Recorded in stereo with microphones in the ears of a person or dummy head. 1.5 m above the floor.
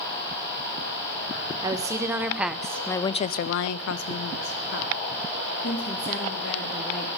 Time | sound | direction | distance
1.6 | a woman speaking | 20° right (ahead or behind) | 1.3 m